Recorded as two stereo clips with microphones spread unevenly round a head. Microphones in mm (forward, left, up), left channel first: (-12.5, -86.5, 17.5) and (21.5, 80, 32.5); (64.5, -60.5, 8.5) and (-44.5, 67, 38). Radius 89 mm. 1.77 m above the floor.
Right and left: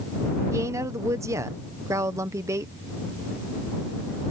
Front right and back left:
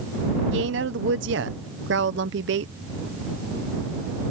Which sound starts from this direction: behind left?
A woman speaking, at 0.5 s.